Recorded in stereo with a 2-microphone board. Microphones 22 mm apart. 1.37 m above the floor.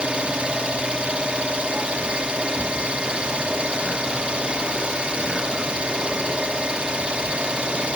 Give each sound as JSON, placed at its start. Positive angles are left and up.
{"t": 0.0, "sound": "an engine running", "side_deg": -45, "distance_m": 2.5}